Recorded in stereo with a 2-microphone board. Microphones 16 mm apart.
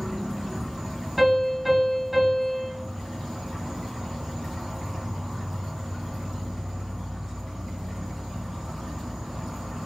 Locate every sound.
0.0 s an insect: 65° right (ahead or behind), 0.9 m
1.2 s a piano: 20° right (ahead or behind), 1.8 m